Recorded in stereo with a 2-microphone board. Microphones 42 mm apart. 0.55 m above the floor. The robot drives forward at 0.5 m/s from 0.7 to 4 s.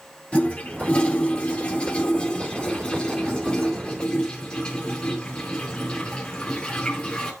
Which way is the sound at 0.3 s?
30° left (ahead or behind).